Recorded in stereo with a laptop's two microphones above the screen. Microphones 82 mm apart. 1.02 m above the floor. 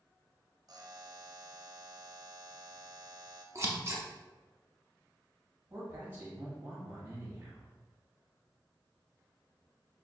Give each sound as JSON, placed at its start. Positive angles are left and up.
{"t": 0.7, "sound": "a buzzer", "side_deg": -50, "distance_m": 0.6}
{"t": 3.5, "sound": "scissors", "side_deg": -35, "distance_m": 0.6}
{"t": 5.7, "sound": "a man speaking", "side_deg": -25, "distance_m": 1.7}